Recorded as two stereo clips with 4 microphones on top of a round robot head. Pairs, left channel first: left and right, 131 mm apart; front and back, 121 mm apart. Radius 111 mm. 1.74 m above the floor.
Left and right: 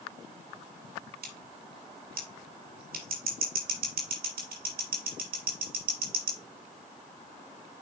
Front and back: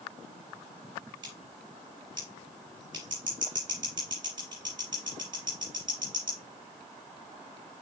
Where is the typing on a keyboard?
I don't hear typing on a keyboard.